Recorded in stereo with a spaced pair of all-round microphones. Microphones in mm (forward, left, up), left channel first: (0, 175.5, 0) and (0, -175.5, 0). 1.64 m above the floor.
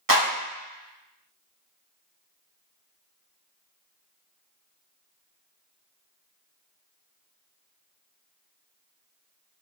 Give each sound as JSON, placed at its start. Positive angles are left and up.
{"t": 0.1, "sound": "a clap", "side_deg": -65, "distance_m": 1.8}